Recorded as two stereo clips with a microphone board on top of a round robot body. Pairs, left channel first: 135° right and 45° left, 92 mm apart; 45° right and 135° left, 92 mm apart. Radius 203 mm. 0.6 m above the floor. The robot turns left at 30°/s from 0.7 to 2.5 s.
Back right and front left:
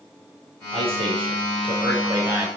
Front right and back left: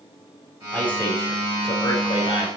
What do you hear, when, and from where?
0.7 s a man speaking: 35° left, 3.5 m; by 2.5 s 20° right, 3.5 m